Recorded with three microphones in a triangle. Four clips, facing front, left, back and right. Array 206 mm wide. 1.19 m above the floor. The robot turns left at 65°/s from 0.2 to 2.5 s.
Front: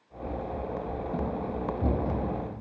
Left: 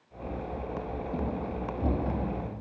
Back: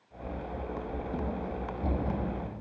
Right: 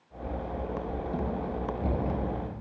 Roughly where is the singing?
No singing in this recording.